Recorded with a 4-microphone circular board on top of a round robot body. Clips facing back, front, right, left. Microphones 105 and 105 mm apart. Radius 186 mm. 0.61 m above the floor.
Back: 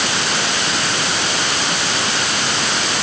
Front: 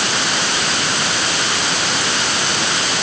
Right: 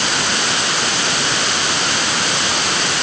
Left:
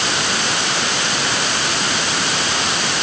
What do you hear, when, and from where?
Only background noise.